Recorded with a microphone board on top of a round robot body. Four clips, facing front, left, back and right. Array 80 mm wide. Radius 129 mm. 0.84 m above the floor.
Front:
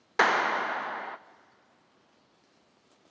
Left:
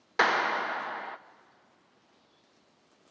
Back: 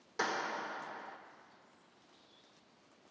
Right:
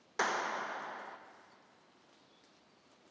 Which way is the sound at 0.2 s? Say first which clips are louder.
Left 9 dB, front 12 dB; 30° left.